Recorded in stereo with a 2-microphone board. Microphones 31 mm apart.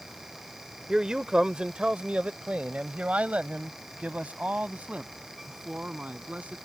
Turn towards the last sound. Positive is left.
turn(degrees=-55)  # may be behind; listen again after turning